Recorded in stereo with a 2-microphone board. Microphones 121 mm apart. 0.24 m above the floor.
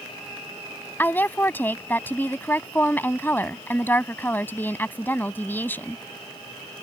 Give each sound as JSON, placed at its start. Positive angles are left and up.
{"t": 1.0, "sound": "a woman speaking", "side_deg": 15}